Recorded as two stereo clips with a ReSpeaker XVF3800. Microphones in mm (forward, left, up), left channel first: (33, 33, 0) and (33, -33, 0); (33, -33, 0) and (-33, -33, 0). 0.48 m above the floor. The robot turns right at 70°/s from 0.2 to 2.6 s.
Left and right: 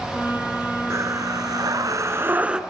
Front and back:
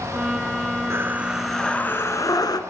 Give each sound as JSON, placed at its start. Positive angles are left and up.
{"t": 0.9, "sound": "breathing", "azimuth_deg": -130, "distance_m": 1.6}